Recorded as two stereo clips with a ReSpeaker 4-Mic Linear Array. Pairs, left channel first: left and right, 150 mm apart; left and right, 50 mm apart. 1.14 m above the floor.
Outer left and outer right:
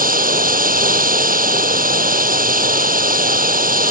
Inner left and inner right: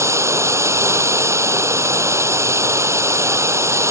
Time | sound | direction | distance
0.0 | running water | 70° right (ahead or behind) | ?